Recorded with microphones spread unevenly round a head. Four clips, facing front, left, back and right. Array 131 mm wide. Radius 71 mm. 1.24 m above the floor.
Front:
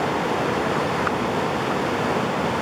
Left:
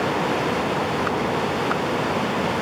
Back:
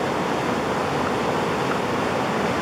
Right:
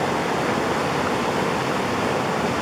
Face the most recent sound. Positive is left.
No sound to turn to.